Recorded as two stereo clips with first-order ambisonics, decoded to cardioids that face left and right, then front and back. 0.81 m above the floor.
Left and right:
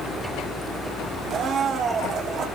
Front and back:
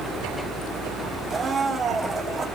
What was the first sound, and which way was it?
A blender, 120° right.